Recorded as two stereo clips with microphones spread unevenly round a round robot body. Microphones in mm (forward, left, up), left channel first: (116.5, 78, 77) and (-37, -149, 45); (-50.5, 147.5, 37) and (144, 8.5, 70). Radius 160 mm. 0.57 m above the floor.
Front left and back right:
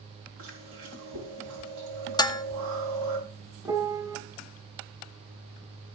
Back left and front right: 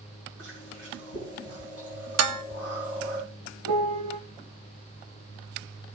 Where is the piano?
45° right, 1.2 m.